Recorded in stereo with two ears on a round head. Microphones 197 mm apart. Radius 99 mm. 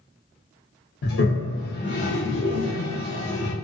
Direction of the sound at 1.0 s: 50° left (ahead or behind).